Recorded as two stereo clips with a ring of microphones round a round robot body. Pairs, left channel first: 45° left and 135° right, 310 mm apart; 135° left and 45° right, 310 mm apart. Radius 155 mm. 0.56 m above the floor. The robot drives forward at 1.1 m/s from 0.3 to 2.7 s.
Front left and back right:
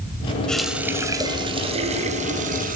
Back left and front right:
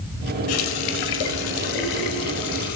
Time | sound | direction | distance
0.5 | a running tap | 130° left | 1.9 m